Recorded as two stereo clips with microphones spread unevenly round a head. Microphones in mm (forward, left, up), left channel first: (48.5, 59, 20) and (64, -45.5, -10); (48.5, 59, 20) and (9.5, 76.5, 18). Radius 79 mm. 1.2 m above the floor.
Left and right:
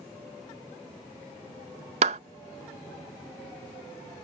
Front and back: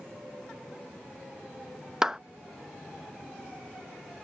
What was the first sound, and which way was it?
A clap, 120° right.